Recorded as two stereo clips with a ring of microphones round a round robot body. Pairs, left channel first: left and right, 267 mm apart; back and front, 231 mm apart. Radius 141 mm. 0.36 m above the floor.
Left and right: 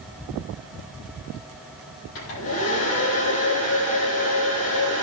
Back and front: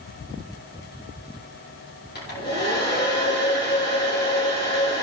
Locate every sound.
2.1 s a hair dryer: 135° left, 6 m